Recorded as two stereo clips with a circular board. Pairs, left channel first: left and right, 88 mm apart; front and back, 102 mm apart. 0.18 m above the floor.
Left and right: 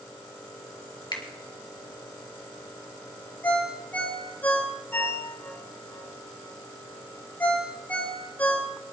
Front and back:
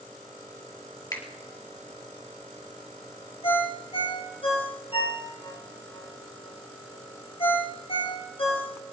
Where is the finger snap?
50° left, 3.5 m.